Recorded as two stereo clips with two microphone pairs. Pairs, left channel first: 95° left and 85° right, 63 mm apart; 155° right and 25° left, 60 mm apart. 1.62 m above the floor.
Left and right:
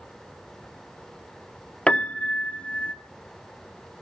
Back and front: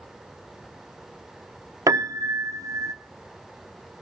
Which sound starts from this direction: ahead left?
A piano, at 1.9 s.